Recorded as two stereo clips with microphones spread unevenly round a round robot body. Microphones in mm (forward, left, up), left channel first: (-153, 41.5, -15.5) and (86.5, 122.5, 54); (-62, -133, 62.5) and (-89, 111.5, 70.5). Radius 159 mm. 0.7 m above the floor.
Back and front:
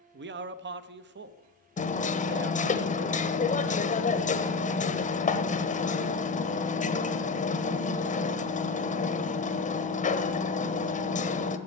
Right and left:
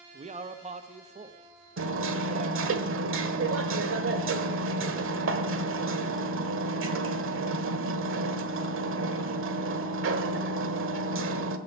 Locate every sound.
0.1 s a man speaking: 55° left, 0.7 m
1.8 s hammering: 135° left, 1.2 m